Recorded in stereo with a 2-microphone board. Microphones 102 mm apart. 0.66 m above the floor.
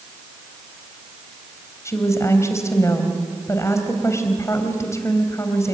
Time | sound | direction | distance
1.9 | a woman speaking | 30° left (ahead or behind) | 3.5 m